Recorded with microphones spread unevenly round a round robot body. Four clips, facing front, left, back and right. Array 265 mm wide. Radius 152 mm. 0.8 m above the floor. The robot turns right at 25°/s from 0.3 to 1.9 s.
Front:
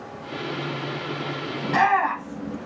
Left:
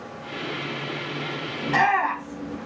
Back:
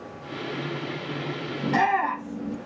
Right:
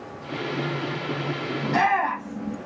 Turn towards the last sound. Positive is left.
turn(degrees=160)